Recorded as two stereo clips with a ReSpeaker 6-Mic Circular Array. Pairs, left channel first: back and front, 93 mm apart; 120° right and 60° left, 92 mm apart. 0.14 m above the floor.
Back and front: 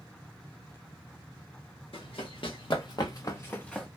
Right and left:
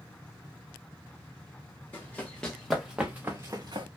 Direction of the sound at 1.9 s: 165° left.